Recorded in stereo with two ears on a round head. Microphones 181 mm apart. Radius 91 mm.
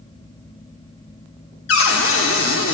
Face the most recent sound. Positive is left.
turn(degrees=70)  # may be behind; listen again after turning